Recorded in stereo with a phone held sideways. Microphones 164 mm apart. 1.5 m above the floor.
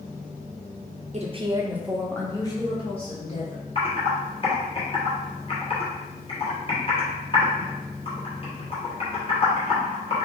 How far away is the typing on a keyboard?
About 1.1 m.